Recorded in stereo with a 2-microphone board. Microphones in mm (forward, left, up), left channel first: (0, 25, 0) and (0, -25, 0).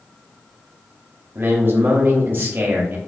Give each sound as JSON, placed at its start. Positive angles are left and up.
{"t": 1.4, "sound": "a man speaking", "side_deg": -45, "distance_m": 0.8}